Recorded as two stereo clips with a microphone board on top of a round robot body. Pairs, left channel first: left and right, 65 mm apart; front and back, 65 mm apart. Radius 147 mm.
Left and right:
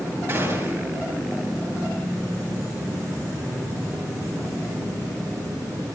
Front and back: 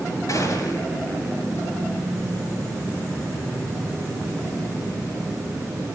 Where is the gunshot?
35° right, 7 m.